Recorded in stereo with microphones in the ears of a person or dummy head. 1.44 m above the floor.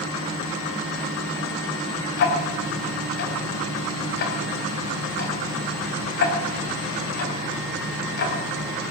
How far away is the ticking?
About 3.5 m.